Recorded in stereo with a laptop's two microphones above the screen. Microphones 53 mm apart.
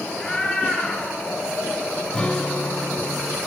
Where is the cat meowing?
10° left (ahead or behind), 8.5 m; by 2.1 s 20° left (ahead or behind), 8.5 m.